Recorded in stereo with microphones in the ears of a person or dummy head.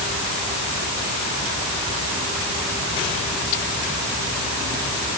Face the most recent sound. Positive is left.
No sound to turn to.